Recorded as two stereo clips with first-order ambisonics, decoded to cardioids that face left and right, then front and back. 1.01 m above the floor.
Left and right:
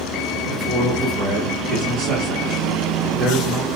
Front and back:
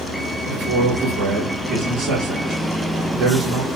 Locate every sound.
0.5 s a man speaking: 140° right, 1.4 m